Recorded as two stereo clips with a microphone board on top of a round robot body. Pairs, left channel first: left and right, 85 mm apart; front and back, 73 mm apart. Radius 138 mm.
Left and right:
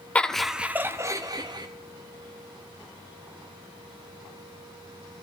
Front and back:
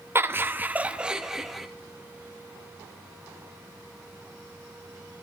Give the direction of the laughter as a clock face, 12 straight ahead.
7 o'clock.